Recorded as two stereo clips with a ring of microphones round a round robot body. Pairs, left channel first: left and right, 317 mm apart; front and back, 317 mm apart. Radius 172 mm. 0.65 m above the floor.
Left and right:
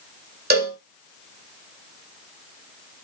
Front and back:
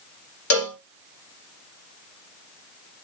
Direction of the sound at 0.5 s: 30° right.